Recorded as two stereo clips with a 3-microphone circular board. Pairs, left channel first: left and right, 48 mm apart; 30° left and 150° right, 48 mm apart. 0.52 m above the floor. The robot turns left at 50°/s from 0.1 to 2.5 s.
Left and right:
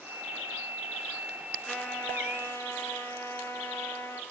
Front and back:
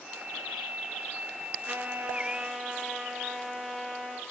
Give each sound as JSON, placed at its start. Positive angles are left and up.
{"t": 1.7, "sound": "a trumpet", "azimuth_deg": 160, "distance_m": 4.5}